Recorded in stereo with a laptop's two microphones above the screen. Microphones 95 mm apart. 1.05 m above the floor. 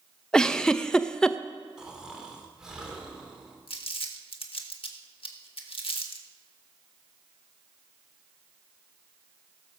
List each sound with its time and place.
0.3 s a giggle: 10° left (ahead or behind), 0.6 m
1.8 s snoring: 5° right (ahead or behind), 3 m
3.7 s crumpling: 70° left (ahead or behind), 1.5 m